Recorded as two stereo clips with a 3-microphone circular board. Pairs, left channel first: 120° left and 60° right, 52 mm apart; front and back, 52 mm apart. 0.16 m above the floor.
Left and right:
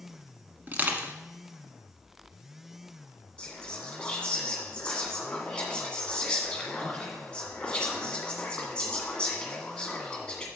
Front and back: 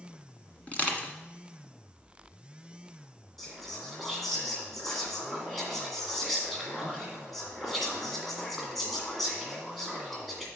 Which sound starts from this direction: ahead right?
Crushing, at 0.7 s.